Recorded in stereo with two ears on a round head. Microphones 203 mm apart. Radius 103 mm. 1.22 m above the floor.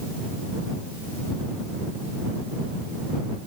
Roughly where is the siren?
I don't hear a siren.